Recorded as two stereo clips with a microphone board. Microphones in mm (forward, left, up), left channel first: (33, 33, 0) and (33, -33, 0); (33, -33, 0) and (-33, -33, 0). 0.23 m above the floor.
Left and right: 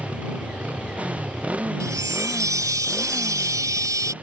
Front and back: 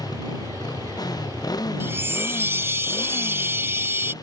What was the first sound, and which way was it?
A motorcycle, 20° right.